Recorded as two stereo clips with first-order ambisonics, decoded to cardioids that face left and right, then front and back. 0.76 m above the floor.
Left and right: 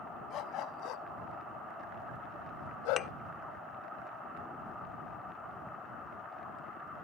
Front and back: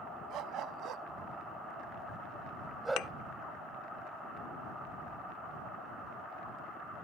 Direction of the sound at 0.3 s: 135° left.